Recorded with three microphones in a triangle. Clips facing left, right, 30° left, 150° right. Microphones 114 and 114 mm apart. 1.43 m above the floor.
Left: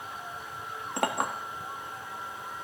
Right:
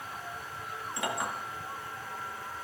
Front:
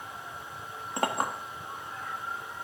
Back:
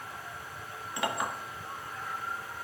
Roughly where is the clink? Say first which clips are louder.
Left 5 dB, front 3 dB; left.